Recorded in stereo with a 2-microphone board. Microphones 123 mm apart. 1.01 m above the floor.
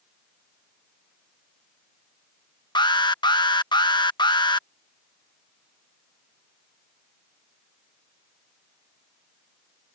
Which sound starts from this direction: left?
An alarm, at 2.8 s.